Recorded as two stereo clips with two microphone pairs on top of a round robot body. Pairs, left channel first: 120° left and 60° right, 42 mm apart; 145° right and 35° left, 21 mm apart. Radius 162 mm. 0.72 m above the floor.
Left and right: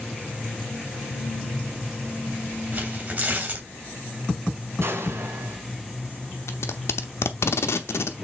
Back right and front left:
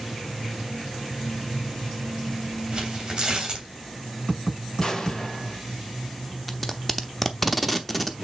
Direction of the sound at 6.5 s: 130° left.